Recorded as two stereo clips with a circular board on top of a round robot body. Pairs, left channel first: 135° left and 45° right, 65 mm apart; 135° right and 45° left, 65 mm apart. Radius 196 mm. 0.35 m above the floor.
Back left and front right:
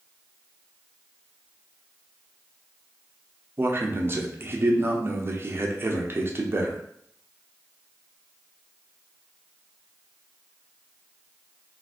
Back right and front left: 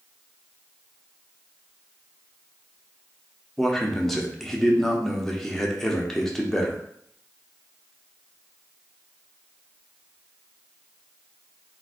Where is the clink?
I don't hear a clink.